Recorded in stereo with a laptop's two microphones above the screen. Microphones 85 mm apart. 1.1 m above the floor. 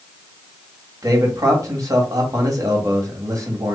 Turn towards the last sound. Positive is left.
turn(degrees=-40)  # may be behind; listen again after turning